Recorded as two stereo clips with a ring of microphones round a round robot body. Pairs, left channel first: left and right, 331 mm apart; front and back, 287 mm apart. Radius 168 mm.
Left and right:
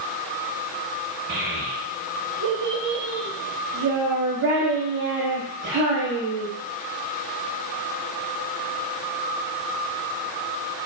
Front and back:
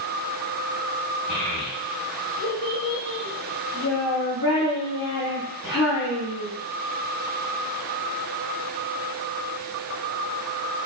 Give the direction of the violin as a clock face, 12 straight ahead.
No violin in this recording.